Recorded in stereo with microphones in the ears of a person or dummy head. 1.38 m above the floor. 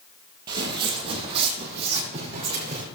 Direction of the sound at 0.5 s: 25° right (ahead or behind).